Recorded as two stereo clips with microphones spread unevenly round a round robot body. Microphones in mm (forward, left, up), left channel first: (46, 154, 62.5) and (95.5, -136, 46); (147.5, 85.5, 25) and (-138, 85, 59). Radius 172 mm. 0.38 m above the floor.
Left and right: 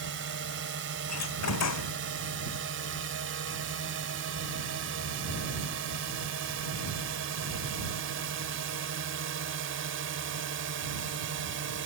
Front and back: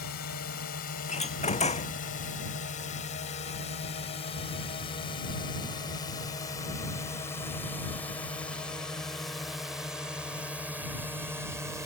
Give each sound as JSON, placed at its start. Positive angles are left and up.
{"t": 0.0, "sound": "a drone", "azimuth_deg": -45}
{"t": 1.1, "sound": "a door slam", "azimuth_deg": 70}